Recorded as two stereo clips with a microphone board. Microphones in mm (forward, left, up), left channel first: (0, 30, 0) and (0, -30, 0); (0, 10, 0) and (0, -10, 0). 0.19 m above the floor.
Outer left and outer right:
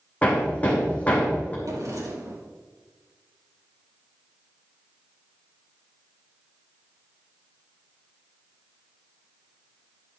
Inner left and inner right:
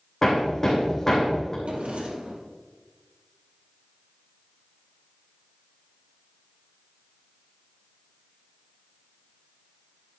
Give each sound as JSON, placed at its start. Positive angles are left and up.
{"t": 0.2, "sound": "hammering", "side_deg": 25, "distance_m": 4.0}
{"t": 1.6, "sound": "a drawer", "side_deg": -75, "distance_m": 3.0}